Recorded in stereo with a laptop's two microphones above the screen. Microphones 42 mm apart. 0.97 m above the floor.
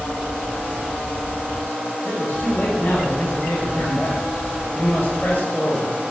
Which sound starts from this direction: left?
A man speaking, at 2.0 s.